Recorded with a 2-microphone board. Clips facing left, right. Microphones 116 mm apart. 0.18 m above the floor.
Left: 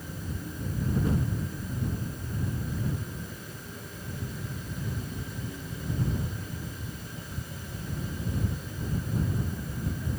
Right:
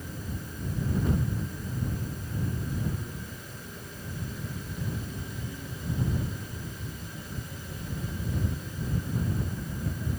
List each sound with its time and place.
Only background noise.